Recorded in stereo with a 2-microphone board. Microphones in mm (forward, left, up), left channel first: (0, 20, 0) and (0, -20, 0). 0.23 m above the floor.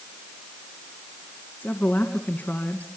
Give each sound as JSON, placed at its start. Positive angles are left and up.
{"t": 1.6, "sound": "a woman speaking", "side_deg": 50, "distance_m": 2.5}